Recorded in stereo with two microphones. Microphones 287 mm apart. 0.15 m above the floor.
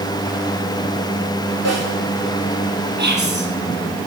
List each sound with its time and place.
1.6 s a snare drum: 65° right (ahead or behind), 7 m
3.0 s whispering: 40° right (ahead or behind), 5 m